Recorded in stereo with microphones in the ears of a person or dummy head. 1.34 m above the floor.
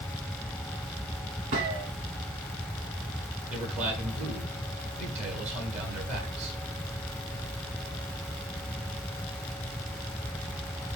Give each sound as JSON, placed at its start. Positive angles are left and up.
{"t": 1.5, "sound": "a gunshot", "side_deg": -35, "distance_m": 1.5}
{"t": 3.5, "sound": "a man speaking", "side_deg": -45, "distance_m": 8.0}